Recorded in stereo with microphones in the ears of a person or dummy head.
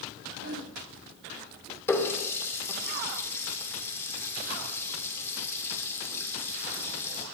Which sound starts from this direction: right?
A whoosh, at 0.3 s.